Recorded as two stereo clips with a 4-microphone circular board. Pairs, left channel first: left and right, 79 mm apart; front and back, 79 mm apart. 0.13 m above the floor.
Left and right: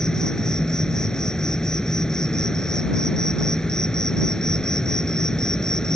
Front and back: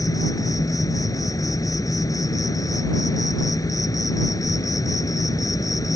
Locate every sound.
0.0 s an insect: 10° left